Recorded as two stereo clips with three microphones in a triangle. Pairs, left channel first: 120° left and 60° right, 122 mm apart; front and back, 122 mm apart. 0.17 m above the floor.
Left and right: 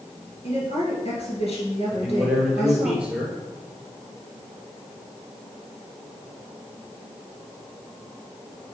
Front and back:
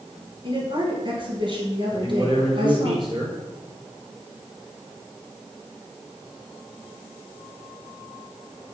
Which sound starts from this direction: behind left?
A woman speaking, at 0.4 s.